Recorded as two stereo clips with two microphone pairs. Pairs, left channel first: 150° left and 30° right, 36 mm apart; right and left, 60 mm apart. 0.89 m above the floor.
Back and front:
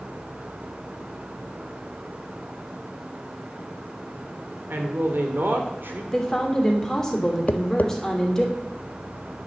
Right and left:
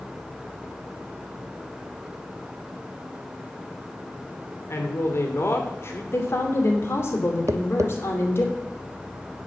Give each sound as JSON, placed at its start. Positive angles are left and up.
{"t": 4.7, "sound": "a man speaking", "azimuth_deg": -45, "distance_m": 2.5}
{"t": 6.1, "sound": "a woman speaking", "azimuth_deg": -135, "distance_m": 2.5}
{"t": 7.5, "sound": "tapping", "azimuth_deg": 120, "distance_m": 0.5}